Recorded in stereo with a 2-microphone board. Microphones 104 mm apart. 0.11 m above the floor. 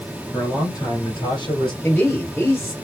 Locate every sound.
0.3 s a man speaking: 30° left (ahead or behind), 2.5 m; by 1.7 s 50° left (ahead or behind), 2.5 m
1.8 s a man speaking: 20° left (ahead or behind), 1.8 m